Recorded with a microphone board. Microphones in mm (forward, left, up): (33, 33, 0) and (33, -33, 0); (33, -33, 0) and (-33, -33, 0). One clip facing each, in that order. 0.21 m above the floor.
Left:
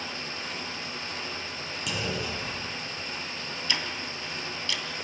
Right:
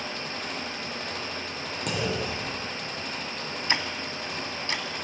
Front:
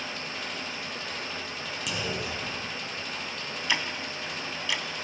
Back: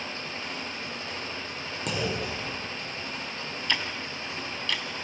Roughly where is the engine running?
Behind right.